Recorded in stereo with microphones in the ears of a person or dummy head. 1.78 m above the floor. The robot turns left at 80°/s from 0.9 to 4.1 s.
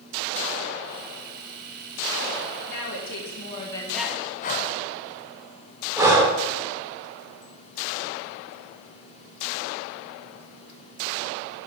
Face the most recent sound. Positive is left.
turn(degrees=-15)  # may be behind; listen again after turning